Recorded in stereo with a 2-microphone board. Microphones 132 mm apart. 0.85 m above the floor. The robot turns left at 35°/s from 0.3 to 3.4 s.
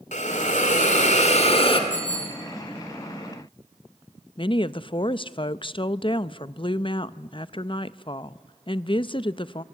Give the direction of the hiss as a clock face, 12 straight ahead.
9 o'clock.